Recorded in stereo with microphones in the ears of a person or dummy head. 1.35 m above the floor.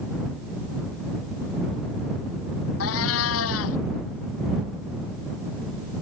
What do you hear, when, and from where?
2.8 s a cat meowing: 80° left